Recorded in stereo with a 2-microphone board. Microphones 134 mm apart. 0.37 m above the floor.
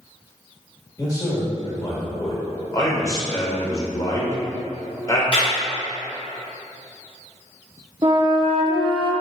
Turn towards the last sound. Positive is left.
turn(degrees=-35)  # may be behind; listen again after turning